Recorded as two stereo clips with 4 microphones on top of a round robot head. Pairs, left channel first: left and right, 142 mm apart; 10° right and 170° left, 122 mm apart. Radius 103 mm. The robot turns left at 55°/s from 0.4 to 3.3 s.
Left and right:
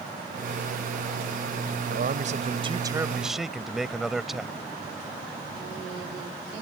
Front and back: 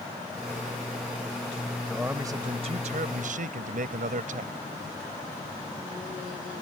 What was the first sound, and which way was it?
A man speaking, 100° right.